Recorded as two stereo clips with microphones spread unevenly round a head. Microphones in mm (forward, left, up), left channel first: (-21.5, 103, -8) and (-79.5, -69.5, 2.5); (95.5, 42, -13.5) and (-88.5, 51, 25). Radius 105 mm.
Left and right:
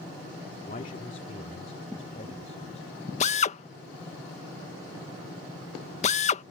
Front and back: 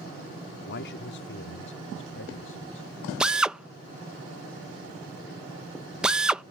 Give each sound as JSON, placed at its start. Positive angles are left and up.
{"t": 0.7, "sound": "a man speaking", "azimuth_deg": 15}
{"t": 3.2, "sound": "a drill", "azimuth_deg": 80}